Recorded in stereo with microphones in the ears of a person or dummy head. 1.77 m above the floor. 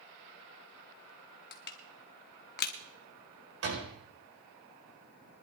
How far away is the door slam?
About 5 m.